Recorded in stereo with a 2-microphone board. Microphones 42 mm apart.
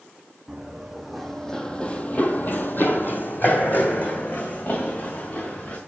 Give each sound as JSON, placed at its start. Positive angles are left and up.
{"t": 0.5, "sound": "running footsteps", "side_deg": -5, "distance_m": 1.1}